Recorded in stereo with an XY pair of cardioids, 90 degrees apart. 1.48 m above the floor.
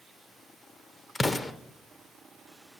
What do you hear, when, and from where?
1.1 s an explosion: 30° left, 0.5 m